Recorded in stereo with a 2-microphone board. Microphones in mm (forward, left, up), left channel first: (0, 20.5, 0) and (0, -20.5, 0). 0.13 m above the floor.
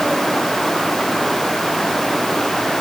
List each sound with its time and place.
Only background noise.